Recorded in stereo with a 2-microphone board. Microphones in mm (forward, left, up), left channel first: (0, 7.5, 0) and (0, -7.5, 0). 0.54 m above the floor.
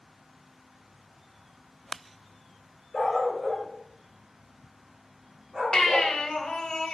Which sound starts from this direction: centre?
A dog barking, at 2.9 s.